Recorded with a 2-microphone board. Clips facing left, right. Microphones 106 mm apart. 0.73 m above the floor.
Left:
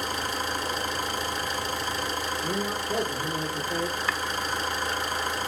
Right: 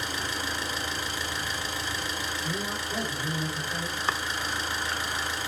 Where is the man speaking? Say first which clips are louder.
Left 4 dB; 60° left (ahead or behind), 2.5 m.